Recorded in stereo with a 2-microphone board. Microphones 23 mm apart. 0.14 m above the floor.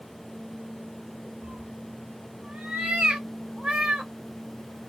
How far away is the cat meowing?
About 0.9 m.